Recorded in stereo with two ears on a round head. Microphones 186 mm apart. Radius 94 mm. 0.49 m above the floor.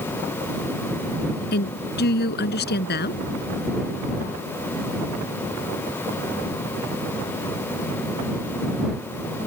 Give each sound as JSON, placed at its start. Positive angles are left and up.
{"t": 1.5, "sound": "a woman speaking", "side_deg": 55}